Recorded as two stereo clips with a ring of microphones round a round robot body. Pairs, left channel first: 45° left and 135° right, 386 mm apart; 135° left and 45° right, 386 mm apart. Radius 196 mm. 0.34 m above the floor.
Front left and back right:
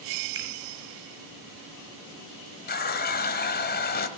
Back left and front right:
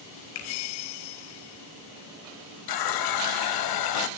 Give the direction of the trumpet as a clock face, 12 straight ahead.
I don't hear a trumpet.